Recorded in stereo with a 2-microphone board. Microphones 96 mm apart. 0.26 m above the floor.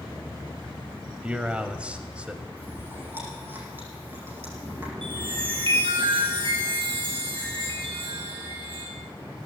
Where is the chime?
65° right (ahead or behind), 6 m.